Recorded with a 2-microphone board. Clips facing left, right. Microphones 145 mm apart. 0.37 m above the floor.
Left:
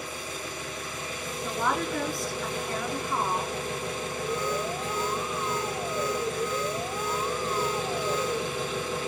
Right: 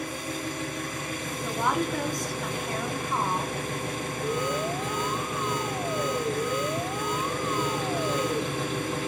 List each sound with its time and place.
0.0 s an engine running: 55° right (ahead or behind), 4 m
1.4 s a woman speaking: 20° right (ahead or behind), 5 m
4.2 s an alarm: 15° right (ahead or behind), 1.4 m